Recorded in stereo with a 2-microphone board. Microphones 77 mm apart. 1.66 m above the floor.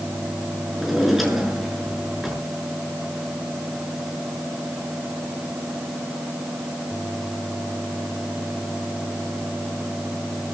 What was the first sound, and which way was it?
A drawer, centre (ahead or behind).